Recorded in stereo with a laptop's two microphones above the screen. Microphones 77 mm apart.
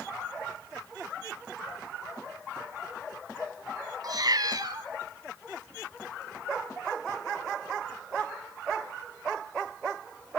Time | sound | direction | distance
4.0 | a cat meowing | 55° right (ahead or behind) | 1.5 m